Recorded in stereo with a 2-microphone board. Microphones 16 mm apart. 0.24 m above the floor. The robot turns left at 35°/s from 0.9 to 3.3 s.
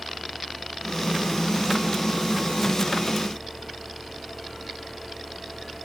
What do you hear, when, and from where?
Only background noise.